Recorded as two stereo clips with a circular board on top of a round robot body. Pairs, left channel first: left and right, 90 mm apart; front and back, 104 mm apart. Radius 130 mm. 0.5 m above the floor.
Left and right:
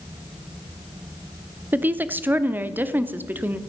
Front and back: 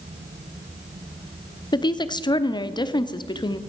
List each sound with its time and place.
1.7 s a woman speaking: 25° right, 1.1 m